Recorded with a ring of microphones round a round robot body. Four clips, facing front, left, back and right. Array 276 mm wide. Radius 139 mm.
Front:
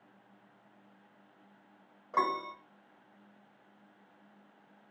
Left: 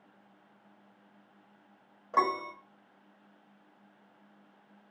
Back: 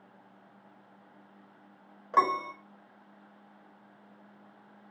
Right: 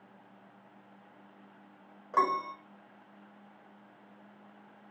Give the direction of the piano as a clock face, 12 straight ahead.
6 o'clock.